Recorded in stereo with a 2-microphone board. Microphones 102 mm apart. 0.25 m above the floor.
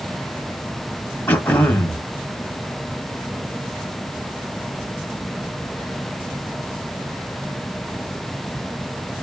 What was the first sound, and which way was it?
Throat clearing, 15° left (ahead or behind).